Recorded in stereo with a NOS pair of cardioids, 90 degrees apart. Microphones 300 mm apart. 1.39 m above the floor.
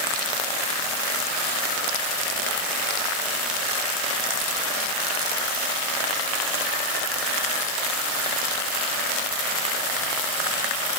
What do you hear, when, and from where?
Only background noise.